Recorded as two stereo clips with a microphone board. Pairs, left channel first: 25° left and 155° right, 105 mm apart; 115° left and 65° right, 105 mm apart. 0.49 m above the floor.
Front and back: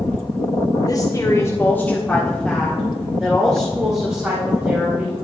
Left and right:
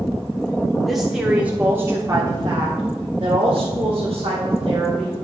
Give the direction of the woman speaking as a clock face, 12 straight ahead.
11 o'clock.